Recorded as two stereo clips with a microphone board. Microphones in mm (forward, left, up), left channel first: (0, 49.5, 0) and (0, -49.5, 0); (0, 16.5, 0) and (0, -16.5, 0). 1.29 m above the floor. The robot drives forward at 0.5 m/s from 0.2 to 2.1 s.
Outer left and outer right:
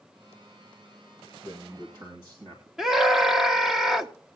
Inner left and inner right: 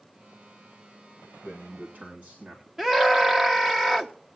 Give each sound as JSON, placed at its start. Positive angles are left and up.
{"t": 1.4, "sound": "a man speaking", "side_deg": -45, "distance_m": 2.5}
{"t": 2.8, "sound": "a scream", "side_deg": 0, "distance_m": 1.3}